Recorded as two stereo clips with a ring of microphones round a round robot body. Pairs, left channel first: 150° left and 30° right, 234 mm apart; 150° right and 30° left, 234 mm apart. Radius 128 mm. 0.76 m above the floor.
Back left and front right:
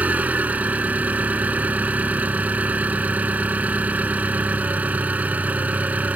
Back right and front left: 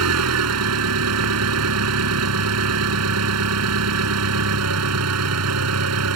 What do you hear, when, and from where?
0.0 s an engine running: 55° left